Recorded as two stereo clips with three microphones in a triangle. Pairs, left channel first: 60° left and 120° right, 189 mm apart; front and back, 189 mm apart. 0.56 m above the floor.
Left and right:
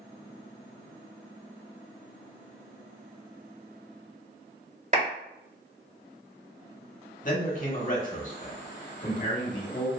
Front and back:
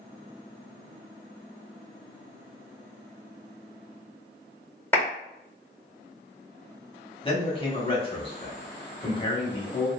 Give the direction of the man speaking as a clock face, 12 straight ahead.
10 o'clock.